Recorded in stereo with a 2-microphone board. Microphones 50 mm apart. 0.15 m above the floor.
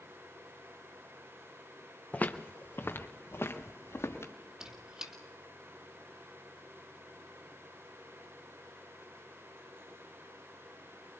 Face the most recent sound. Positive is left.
turn(degrees=-15)  # may be behind; listen again after turning